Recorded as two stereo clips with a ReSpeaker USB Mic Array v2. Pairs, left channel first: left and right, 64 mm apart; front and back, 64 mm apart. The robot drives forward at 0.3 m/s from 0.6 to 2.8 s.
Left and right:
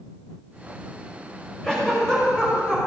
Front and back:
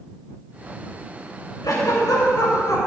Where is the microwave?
I don't hear a microwave.